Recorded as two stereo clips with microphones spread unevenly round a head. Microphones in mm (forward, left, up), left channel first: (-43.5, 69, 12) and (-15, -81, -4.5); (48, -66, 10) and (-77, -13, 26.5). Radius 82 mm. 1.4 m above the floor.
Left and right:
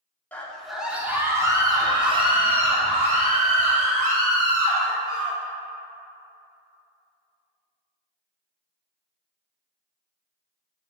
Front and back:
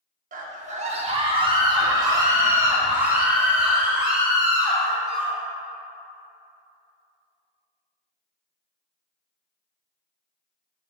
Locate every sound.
0.3 s a scream: straight behind, 1.8 m; by 5.4 s 115° right, 5 m